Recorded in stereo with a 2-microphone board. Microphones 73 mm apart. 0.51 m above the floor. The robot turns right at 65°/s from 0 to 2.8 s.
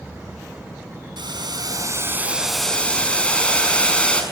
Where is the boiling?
90° right, 5.5 m; by 4.2 s 15° left, 5.5 m.